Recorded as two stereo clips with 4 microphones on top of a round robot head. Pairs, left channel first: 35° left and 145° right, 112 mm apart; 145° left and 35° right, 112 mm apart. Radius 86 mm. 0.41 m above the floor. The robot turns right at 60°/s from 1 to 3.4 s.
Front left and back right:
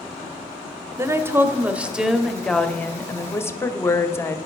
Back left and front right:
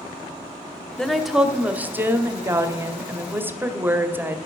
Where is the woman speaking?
135° right, 1.1 m; by 4.4 s 10° left, 1.1 m.